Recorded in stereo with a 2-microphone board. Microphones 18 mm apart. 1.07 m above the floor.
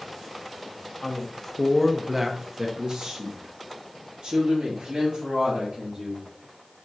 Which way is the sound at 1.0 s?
35° left (ahead or behind).